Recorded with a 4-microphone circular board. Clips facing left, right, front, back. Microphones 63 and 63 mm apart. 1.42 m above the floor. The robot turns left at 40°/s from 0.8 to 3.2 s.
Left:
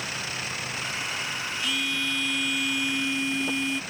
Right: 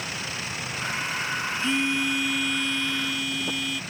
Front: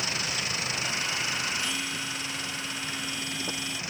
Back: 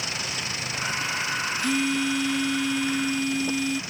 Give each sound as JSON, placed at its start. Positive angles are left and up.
{"t": 1.6, "sound": "a phone buzzing", "azimuth_deg": -145}